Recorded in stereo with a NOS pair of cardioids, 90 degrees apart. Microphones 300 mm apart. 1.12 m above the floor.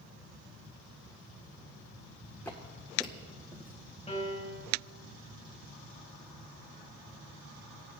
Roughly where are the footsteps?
Ahead.